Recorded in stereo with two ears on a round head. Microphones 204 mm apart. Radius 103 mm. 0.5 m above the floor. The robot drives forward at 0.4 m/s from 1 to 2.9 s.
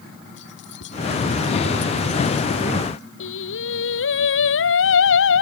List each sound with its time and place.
0.4 s keys jangling: 55° left (ahead or behind)
3.2 s singing: 60° left (ahead or behind)